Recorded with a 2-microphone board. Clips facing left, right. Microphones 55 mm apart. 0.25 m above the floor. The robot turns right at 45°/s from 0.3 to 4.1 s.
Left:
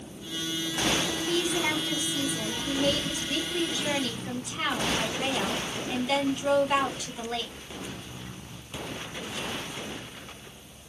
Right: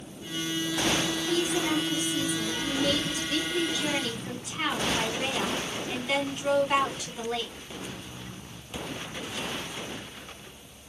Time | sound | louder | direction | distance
1.3 | a woman speaking | even | 65° left | 2 m